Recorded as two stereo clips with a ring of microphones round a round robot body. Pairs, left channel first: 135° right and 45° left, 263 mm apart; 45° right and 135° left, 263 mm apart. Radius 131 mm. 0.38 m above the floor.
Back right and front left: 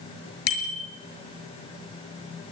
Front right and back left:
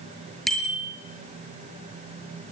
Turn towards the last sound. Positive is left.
turn(degrees=-135)